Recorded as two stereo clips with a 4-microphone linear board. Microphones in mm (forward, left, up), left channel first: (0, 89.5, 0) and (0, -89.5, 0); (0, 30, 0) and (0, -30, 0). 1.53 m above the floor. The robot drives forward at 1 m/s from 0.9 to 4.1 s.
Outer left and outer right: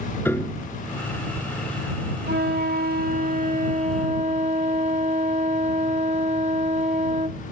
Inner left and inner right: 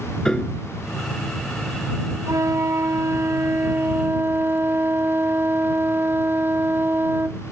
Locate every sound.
0.2 s a piano: 15° left (ahead or behind)
2.3 s a flute: 80° right; by 7.4 s 45° right (ahead or behind)